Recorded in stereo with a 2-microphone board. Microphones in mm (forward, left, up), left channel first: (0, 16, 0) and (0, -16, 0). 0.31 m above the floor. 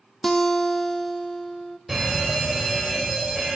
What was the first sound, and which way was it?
A guitar, 15° left (ahead or behind).